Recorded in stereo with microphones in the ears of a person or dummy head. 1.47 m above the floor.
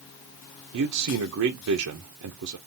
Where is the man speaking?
85° right, 0.6 m.